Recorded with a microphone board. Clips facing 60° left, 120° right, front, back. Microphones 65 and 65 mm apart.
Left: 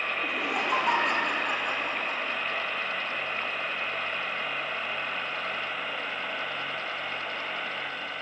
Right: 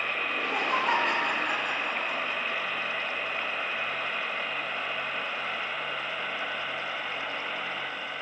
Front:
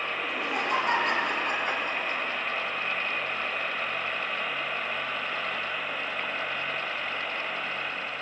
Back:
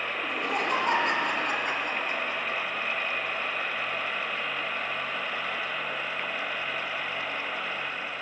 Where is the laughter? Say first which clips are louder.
Even, back 2 dB; 140° left, 8 m; by 2.4 s 150° left, 10.5 m.